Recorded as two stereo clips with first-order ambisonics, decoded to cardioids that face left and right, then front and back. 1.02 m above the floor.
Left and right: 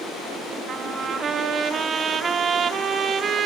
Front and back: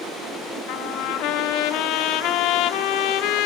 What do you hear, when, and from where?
0.7 s a trumpet: 25° right, 2.0 m